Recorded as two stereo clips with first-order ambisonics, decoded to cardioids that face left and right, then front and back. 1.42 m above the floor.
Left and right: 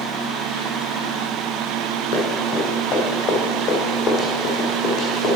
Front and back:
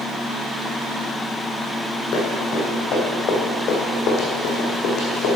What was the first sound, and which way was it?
Running footsteps, 45° left.